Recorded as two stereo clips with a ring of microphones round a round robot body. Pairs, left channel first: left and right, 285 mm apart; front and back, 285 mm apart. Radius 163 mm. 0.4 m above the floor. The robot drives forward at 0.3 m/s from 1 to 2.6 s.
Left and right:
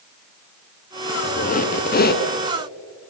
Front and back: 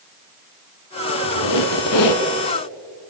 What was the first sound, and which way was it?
A squeak, 25° left.